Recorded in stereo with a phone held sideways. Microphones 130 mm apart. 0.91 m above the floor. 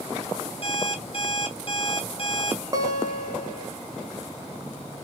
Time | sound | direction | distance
0.6 | an alarm clock | 45° left (ahead or behind) | 1.1 m
2.7 | a guitar | 30° right (ahead or behind) | 0.8 m